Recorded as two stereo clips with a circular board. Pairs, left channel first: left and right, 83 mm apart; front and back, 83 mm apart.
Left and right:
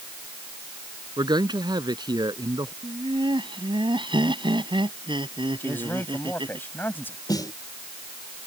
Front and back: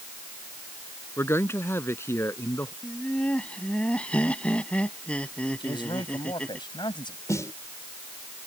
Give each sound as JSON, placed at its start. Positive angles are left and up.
{"t": 1.2, "sound": "a man speaking", "azimuth_deg": -60}
{"t": 2.8, "sound": "laughter", "azimuth_deg": -75}
{"t": 5.6, "sound": "a man speaking", "azimuth_deg": 25}
{"t": 7.3, "sound": "a snare drum", "azimuth_deg": 50}